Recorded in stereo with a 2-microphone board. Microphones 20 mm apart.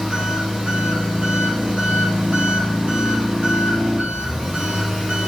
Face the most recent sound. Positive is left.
turn(degrees=-55)  # may be behind; listen again after turning